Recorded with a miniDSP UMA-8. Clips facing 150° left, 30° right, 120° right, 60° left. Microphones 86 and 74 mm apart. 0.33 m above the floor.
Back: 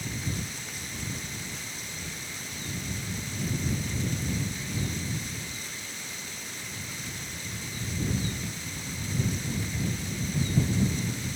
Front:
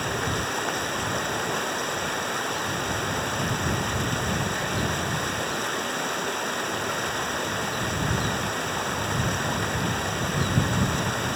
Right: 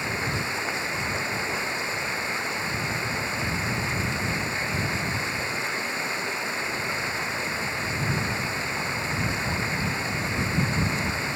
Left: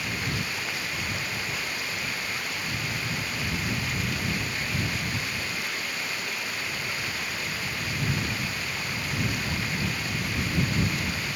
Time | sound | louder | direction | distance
0.0 | running water | front 9 dB, right 3 dB | 55° right | ?